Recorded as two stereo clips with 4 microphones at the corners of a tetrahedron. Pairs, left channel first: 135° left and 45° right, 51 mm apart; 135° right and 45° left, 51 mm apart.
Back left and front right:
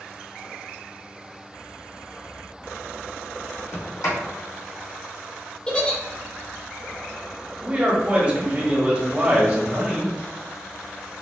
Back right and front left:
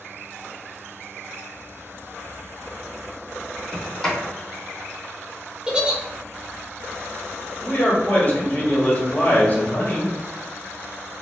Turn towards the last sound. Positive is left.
turn(degrees=-95)